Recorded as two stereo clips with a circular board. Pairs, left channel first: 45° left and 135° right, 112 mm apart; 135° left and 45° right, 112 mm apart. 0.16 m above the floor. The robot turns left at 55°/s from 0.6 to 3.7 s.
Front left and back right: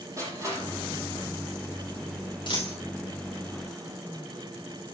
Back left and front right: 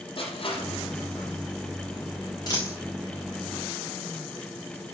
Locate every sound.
0.2 s crushing: 165° left, 6 m; by 1.3 s 130° left, 6 m
2.5 s a dropped coin: 85° left, 7 m; by 2.8 s 65° left, 7 m